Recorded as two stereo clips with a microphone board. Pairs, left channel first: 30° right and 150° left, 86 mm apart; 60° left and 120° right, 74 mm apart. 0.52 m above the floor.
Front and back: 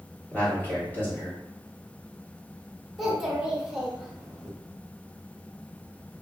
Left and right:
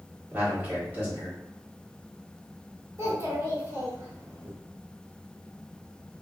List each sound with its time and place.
0.3 s a man speaking: 75° right, 1.3 m
3.0 s a child speaking: 125° right, 0.9 m